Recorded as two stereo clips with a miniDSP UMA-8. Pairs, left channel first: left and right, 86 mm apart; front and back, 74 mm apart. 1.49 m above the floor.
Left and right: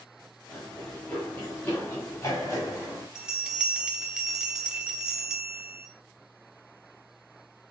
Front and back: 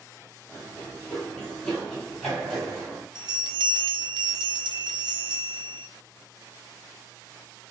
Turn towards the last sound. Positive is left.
turn(degrees=-170)